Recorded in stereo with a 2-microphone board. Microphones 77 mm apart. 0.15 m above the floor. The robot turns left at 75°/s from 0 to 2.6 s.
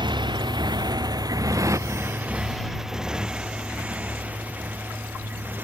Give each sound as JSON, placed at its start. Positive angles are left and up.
{"t": 0.0, "sound": "a motorcycle", "side_deg": -85}